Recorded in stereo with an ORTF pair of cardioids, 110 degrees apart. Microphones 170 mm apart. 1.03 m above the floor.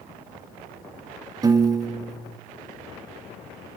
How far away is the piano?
About 1.4 m.